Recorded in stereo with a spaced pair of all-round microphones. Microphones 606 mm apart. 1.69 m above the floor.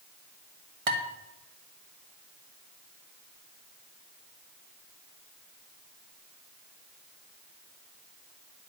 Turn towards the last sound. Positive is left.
turn(degrees=-60)  # may be behind; listen again after turning